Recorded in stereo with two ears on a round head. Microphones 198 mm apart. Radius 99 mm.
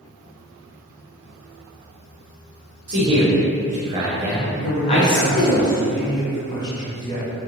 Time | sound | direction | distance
2.9 | a man speaking | 55° right (ahead or behind) | 0.9 m
4.6 | a man speaking | 20° left (ahead or behind) | 0.8 m